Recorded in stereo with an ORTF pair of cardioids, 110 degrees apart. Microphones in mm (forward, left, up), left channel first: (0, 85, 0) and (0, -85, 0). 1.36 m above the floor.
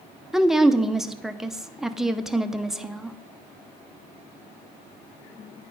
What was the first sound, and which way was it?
A woman speaking, 5° right.